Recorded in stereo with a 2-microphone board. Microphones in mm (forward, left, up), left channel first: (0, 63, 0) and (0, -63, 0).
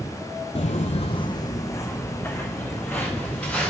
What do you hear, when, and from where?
0.6 s footsteps: 55° left (ahead or behind), 0.5 m; by 3.7 s 10° left (ahead or behind), 3 m